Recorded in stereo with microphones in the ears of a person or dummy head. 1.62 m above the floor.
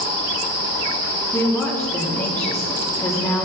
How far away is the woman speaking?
About 2 m.